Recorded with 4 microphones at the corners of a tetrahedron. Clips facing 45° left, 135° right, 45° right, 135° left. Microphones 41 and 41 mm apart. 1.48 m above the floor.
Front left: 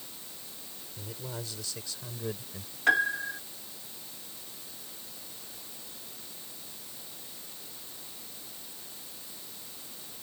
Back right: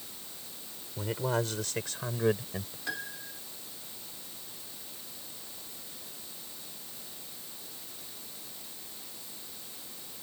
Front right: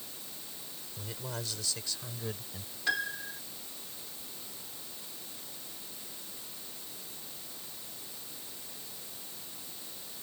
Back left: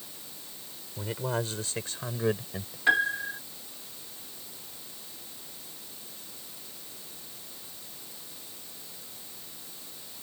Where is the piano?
75° left.